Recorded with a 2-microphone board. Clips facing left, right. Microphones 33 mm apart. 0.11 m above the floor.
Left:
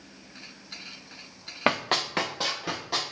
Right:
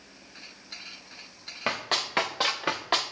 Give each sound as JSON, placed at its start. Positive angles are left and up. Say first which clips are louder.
{"t": 1.7, "sound": "running footsteps", "louder": "left 4 dB", "side_deg": 30, "distance_m": 0.7}